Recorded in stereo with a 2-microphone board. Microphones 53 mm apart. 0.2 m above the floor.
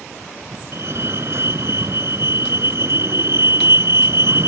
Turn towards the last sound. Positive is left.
turn(degrees=-55)  # may be behind; listen again after turning